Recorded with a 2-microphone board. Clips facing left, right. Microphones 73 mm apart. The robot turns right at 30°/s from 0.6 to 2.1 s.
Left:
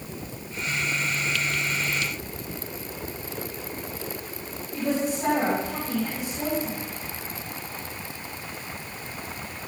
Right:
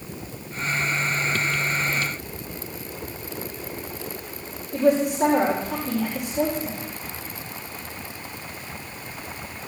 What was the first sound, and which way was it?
A woman speaking, 55° right (ahead or behind).